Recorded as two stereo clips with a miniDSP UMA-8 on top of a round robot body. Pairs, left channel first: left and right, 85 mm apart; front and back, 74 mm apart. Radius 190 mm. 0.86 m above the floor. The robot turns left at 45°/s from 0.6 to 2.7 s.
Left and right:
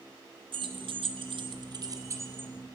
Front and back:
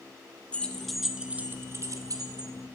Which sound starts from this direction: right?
Keys jangling, at 0.5 s.